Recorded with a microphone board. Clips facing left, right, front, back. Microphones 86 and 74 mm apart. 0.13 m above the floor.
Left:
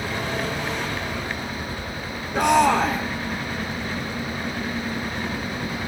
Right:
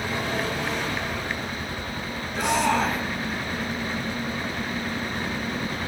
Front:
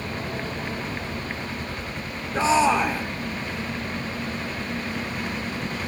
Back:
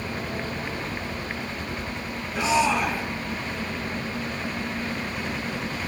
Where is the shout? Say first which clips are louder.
Left 5 dB, front 3 dB; 55° left, 5.5 m.